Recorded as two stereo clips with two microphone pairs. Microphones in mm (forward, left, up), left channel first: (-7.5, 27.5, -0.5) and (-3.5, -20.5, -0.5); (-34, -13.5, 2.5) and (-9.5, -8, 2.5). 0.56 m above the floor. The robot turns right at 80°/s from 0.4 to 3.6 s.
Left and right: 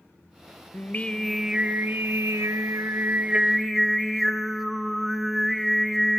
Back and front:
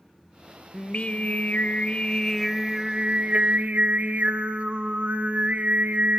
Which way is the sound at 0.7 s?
135° left.